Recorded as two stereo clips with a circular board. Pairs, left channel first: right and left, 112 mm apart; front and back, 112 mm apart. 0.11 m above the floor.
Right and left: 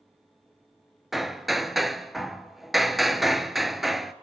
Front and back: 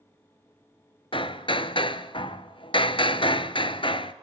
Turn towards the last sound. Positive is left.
turn(degrees=0)